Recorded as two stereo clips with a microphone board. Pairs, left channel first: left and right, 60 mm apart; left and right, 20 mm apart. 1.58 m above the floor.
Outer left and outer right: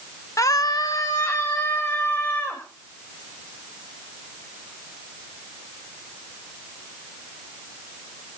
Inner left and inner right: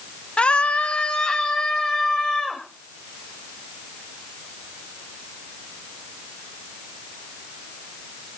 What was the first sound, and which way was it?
A scream, 65° left (ahead or behind).